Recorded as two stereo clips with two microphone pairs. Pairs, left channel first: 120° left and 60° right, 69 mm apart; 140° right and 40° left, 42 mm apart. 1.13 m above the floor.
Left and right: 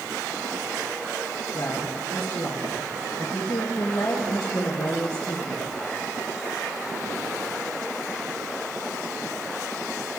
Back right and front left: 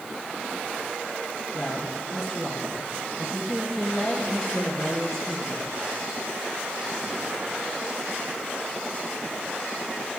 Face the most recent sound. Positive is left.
turn(degrees=145)